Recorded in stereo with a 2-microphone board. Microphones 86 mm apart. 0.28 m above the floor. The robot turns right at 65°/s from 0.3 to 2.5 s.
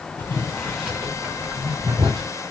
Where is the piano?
I don't hear a piano.